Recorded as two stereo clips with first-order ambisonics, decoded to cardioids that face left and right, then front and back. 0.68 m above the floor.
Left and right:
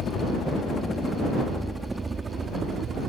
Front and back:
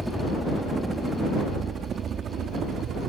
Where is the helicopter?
90° left; by 3.1 s 140° right.